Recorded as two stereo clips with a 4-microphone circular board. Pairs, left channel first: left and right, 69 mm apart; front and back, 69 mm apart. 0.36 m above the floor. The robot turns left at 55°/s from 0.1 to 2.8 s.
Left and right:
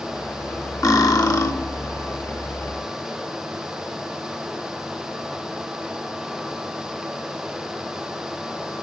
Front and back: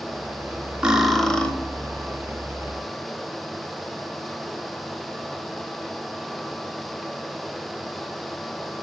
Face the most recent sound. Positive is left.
turn(degrees=-5)